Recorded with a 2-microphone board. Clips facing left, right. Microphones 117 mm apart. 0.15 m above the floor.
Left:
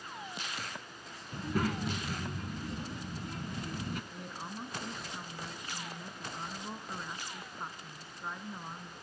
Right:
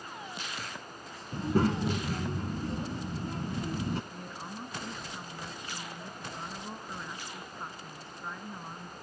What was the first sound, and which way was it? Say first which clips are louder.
A child speaking: right 6 dB; 30° right (ahead or behind).